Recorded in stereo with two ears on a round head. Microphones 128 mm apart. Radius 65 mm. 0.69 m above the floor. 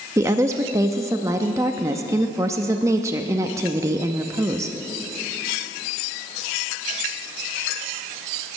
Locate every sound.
0.2 s a woman speaking: 20° right (ahead or behind), 0.5 m